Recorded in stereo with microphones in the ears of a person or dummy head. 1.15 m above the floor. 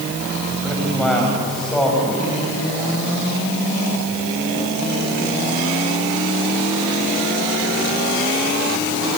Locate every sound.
0.6 s a man speaking: centre (ahead or behind), 6 m